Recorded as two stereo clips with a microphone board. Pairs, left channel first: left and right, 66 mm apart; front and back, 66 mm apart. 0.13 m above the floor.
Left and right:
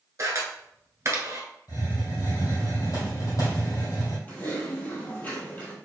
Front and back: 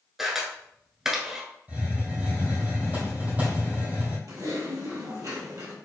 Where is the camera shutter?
100° right, 1.2 m.